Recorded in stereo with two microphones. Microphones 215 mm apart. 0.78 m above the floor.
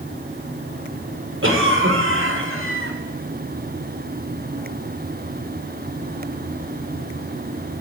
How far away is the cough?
About 2.5 m.